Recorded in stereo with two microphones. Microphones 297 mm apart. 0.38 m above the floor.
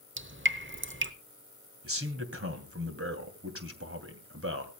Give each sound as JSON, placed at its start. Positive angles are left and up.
{"t": 0.2, "sound": "dripping", "side_deg": -40, "distance_m": 1.0}
{"t": 1.8, "sound": "a man speaking", "side_deg": -45, "distance_m": 2.5}